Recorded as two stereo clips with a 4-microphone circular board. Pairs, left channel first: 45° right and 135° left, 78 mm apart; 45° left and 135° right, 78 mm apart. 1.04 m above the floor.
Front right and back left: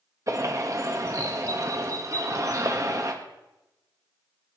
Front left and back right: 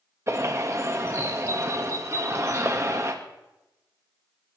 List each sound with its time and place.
0.3 s a bird: 175° left, 1.4 m